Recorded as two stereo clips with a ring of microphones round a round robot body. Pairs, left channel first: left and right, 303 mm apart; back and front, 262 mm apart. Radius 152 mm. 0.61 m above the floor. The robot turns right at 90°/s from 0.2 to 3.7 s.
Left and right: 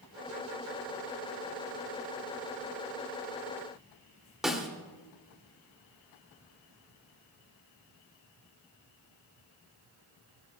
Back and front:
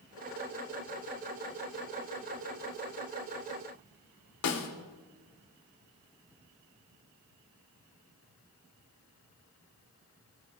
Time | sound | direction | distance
4.4 | a snare drum | straight behind | 2 m